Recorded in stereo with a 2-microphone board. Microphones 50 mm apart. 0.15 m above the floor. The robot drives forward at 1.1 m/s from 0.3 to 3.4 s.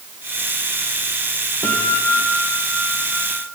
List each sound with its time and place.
1.6 s a guitar: 40° left (ahead or behind), 6 m; by 3.4 s 30° left (ahead or behind), 8 m